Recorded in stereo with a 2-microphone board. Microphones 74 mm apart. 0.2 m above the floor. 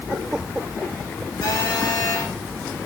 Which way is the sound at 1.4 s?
60° left (ahead or behind).